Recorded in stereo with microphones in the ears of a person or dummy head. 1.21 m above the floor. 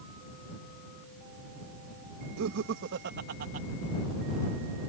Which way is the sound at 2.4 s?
80° right.